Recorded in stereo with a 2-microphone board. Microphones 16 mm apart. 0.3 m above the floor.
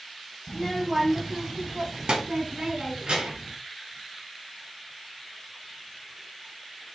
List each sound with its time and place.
0.5 s a child speaking: 20° left (ahead or behind), 1.2 m; by 3.5 s 75° right (ahead or behind), 4 m